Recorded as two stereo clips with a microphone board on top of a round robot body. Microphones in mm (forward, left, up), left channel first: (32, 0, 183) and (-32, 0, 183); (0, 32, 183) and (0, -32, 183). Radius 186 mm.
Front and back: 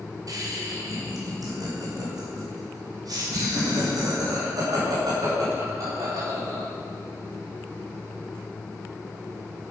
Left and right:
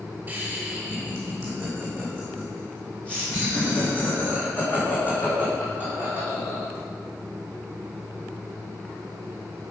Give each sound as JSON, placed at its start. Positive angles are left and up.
{"t": 0.3, "sound": "laughter", "azimuth_deg": -165, "distance_m": 2.5}